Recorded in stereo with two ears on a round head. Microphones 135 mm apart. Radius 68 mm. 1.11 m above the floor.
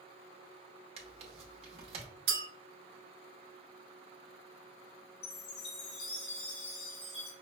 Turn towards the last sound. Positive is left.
turn(degrees=40)  # may be behind; listen again after turning